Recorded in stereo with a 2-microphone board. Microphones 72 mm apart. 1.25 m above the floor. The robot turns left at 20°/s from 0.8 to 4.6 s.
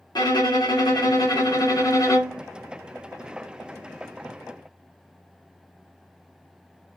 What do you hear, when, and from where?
0.1 s a violin: 80° left, 1.0 m; by 2.4 s 50° left, 1.0 m